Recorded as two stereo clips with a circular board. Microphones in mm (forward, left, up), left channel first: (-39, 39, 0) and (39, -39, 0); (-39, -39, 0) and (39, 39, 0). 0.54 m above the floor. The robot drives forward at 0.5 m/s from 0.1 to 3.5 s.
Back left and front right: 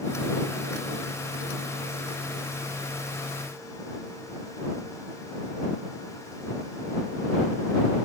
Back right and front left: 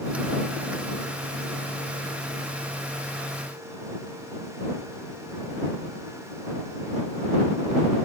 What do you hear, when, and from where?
Only background noise.